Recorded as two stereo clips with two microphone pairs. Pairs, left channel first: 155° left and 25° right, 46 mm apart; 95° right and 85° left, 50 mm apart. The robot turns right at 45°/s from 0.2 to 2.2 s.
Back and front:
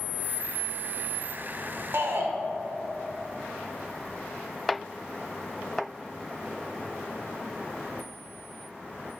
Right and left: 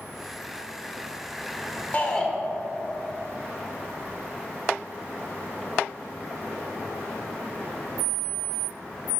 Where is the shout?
40° right, 1.4 m; by 2.3 s 30° right, 1.4 m.